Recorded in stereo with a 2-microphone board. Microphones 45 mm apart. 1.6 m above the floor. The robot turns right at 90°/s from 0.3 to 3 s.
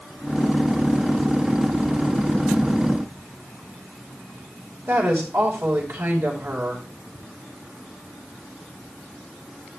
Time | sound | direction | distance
4.9 | a woman speaking | 80° right | 5.5 m